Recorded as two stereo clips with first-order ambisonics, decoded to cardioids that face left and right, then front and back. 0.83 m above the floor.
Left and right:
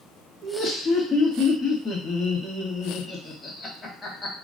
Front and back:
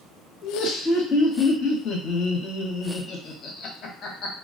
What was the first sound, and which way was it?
Laughter, 20° left.